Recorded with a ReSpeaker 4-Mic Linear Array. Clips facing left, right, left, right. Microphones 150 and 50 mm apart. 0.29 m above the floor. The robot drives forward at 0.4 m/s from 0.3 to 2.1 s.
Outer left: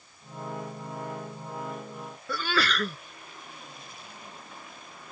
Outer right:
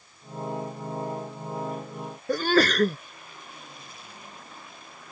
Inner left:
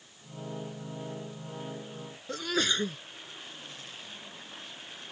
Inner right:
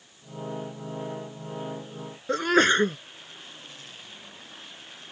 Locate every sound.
2.3 s a sneeze: 50° right (ahead or behind)